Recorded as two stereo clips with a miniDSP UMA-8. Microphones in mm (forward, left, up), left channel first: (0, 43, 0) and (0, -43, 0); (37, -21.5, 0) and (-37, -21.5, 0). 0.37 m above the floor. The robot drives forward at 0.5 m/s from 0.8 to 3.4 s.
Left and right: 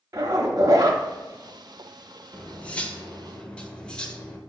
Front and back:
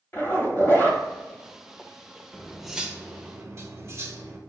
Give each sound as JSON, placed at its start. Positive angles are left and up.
{"t": 0.1, "sound": "a zipper", "azimuth_deg": -50, "distance_m": 0.9}
{"t": 2.3, "sound": "cutlery clinking", "azimuth_deg": 45, "distance_m": 0.5}